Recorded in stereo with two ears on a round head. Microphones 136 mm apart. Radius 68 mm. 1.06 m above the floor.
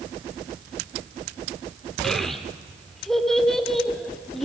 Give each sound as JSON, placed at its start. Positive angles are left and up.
{"t": 2.0, "sound": "a child speaking", "side_deg": 5, "distance_m": 2.0}